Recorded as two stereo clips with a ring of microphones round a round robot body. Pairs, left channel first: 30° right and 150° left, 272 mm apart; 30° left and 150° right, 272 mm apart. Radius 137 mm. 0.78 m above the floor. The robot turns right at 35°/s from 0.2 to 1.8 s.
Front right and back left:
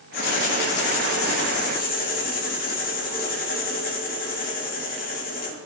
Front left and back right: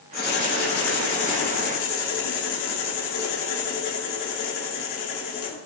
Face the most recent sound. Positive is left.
turn(degrees=30)